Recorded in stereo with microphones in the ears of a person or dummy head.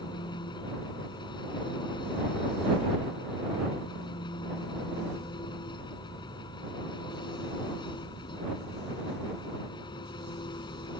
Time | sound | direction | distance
0.0 | an engine running | 25° left (ahead or behind) | ?